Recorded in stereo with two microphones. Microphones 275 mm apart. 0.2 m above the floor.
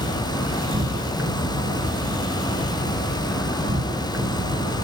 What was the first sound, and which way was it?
An insect, 60° right (ahead or behind).